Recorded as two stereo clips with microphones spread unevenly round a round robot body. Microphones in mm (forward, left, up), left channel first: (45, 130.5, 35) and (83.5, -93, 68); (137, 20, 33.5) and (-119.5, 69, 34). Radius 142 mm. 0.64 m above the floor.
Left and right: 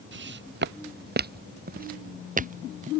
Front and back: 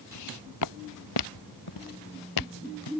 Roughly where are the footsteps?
Ahead right.